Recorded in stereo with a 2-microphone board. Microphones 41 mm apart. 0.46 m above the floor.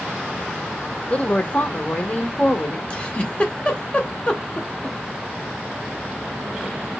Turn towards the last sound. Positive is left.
turn(degrees=30)  # may be behind; listen again after turning